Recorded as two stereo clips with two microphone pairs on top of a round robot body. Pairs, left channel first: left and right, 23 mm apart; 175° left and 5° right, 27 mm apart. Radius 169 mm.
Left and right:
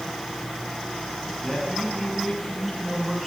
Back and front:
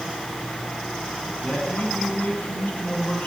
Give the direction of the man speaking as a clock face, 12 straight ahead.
6 o'clock.